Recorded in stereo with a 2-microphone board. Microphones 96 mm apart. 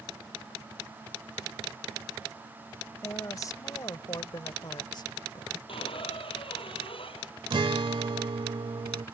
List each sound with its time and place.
3.0 s a woman speaking: 35° left (ahead or behind); by 5.6 s 50° left (ahead or behind)
5.7 s a squeak: 65° left (ahead or behind)
7.5 s a guitar: 60° right (ahead or behind)